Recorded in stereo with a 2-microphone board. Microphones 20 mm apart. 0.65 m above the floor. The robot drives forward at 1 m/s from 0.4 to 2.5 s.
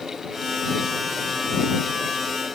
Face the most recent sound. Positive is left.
No sound to turn to.